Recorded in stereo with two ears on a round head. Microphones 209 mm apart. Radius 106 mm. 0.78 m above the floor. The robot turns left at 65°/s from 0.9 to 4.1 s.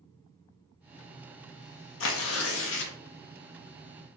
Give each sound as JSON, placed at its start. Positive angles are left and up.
{"t": 2.0, "sound": "tearing paper", "azimuth_deg": 110, "distance_m": 0.5}